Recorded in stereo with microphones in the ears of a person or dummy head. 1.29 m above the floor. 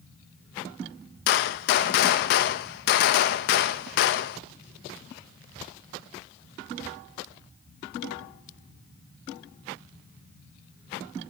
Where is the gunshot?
45° left (ahead or behind), 0.6 m.